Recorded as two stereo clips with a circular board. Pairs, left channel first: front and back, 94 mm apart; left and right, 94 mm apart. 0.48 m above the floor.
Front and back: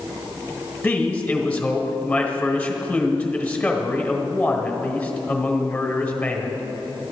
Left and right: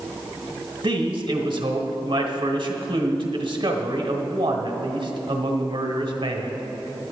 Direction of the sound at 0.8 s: 75° right.